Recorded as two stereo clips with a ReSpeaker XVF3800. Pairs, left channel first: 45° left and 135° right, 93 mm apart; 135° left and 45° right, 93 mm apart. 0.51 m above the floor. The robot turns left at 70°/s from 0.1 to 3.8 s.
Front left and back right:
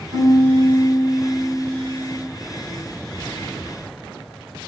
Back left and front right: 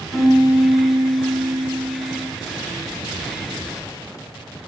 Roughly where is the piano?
Behind right.